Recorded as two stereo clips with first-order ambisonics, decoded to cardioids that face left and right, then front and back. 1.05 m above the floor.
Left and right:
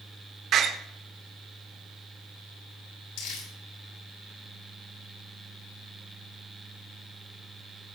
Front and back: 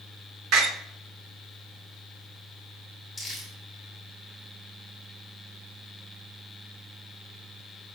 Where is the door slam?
145° right, 2 m.